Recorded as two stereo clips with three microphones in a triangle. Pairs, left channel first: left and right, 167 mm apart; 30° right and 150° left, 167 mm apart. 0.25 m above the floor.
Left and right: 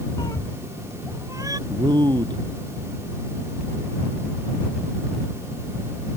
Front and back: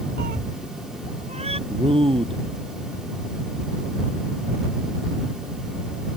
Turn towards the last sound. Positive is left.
turn(degrees=-155)